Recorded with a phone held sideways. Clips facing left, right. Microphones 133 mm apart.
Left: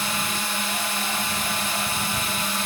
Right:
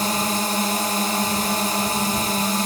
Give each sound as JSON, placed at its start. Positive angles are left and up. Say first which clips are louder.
{"t": 0.0, "sound": "a drone", "louder": "right 6 dB", "side_deg": -40}